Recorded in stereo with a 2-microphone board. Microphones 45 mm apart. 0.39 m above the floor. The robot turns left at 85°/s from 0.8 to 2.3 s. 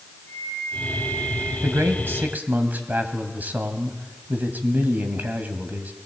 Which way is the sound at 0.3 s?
75° left.